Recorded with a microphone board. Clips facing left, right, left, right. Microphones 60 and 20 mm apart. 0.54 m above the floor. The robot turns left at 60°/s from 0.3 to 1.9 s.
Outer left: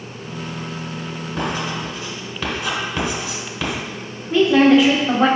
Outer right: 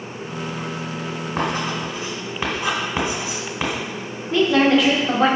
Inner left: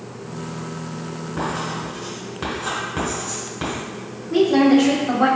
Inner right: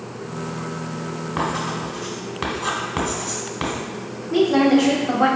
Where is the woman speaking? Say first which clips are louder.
Outer left 3 dB, inner left 1 dB; 5° left (ahead or behind), 1.0 m.